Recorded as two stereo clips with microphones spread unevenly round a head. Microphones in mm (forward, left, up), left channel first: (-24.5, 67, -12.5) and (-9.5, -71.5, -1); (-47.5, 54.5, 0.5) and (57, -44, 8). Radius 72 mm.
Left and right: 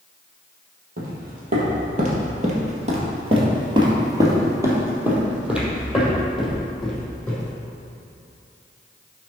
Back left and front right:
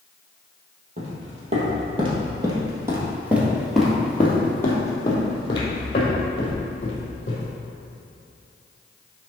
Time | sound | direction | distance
1.0 | footsteps | 80° right | 3 m